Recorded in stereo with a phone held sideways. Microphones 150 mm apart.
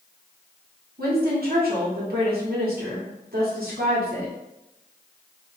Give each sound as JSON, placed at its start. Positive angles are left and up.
{"t": 1.0, "sound": "a woman speaking", "side_deg": -75, "distance_m": 1.2}